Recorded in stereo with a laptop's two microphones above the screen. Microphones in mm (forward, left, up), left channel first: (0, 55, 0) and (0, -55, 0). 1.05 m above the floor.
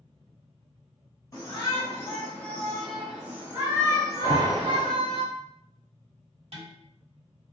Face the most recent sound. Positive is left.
turn(degrees=-60)  # may be behind; listen again after turning